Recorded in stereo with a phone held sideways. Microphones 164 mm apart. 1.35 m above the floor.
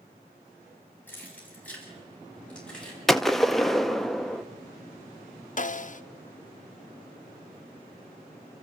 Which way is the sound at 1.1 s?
10° left (ahead or behind).